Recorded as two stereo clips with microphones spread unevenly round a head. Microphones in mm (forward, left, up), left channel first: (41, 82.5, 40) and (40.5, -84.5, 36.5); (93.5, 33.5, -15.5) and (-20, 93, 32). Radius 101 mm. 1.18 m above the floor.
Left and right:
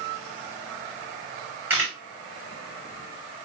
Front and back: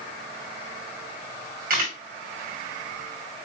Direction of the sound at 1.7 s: 170° right.